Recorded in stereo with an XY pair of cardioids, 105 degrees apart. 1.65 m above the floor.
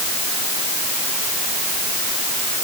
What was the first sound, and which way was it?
Only background noise.